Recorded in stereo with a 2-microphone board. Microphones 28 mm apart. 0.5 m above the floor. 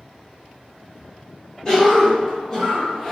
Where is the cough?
20° left (ahead or behind), 1.2 m.